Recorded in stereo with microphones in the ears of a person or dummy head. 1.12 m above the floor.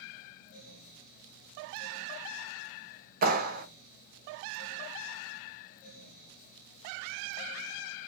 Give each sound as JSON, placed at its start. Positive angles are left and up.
{"t": 3.2, "sound": "a clap", "side_deg": -45, "distance_m": 1.0}